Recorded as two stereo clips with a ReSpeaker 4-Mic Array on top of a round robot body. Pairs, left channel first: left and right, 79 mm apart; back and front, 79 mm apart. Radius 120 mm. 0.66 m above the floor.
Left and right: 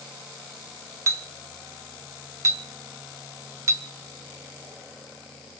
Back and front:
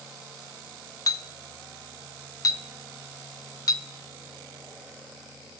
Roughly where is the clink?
Behind right.